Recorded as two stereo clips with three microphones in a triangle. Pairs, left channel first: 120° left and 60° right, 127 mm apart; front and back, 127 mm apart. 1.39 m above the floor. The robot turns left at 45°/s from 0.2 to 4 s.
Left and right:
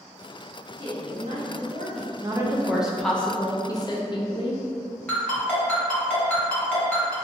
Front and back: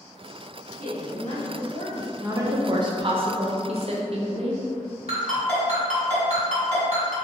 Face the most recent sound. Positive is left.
turn(degrees=-160)